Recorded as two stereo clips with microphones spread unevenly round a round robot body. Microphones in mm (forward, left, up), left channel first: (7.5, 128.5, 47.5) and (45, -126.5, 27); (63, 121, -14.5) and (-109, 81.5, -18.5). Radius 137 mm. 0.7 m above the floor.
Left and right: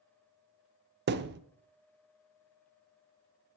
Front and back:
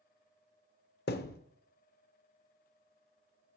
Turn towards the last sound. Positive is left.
turn(degrees=-30)